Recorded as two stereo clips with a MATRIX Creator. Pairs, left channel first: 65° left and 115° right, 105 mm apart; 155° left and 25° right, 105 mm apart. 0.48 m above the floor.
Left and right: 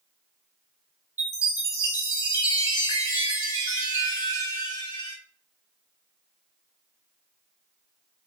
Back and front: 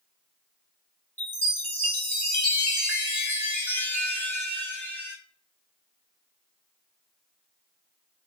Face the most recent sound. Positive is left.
turn(degrees=100)